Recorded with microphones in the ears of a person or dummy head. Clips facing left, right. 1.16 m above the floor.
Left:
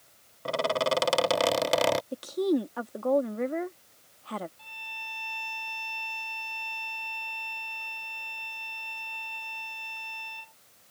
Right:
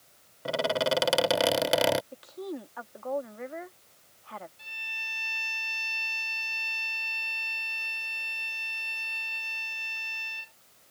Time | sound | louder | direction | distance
0.5 | a squeak | even | centre (ahead or behind) | ?
2.1 | a woman speaking | left 12 dB | 50° left (ahead or behind) | ?
4.6 | a violin | left 4 dB | 20° right (ahead or behind) | ?